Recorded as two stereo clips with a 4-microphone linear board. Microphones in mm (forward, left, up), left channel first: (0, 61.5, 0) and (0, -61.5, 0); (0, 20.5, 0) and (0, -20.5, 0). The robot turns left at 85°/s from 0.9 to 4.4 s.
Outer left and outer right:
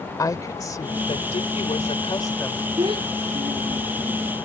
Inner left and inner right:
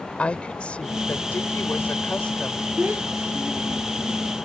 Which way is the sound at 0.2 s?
150° left.